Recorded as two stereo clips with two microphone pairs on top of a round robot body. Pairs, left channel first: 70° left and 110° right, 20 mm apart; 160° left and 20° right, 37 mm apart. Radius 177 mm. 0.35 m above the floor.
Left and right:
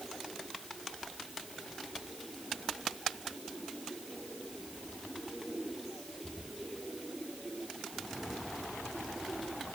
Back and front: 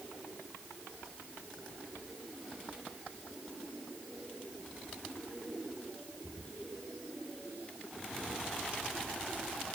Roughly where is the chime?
I don't hear a chime.